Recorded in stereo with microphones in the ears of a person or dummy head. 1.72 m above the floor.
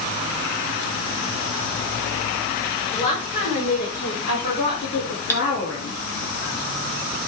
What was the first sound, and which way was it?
A woman speaking, 40° left (ahead or behind).